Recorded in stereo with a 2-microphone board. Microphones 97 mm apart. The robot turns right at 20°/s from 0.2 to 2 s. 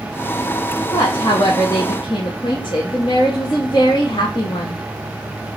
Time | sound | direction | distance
0.9 | a woman speaking | 45° left (ahead or behind) | 0.8 m